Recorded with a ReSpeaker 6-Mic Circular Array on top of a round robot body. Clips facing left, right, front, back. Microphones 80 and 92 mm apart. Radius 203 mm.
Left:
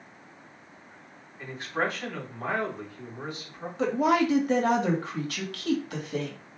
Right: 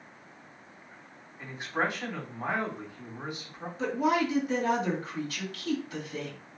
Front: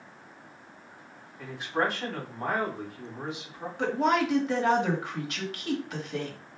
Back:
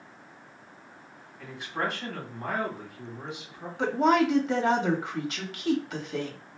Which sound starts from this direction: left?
A woman speaking, at 3.8 s.